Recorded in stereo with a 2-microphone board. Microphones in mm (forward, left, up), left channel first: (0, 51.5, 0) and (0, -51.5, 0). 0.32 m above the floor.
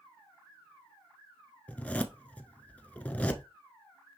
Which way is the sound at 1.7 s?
15° left (ahead or behind).